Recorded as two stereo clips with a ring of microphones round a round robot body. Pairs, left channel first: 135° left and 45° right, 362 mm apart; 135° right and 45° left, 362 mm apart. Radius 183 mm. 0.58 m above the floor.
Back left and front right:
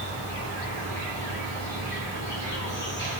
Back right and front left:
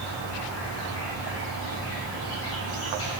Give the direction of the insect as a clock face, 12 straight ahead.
5 o'clock.